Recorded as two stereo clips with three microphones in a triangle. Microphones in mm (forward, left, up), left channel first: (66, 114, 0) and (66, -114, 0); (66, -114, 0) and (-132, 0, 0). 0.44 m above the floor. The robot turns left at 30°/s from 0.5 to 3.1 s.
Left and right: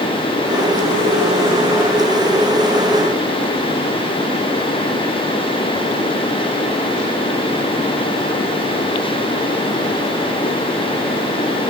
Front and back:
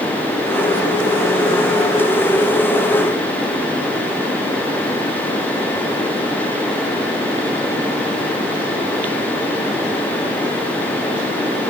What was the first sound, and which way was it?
Only background noise.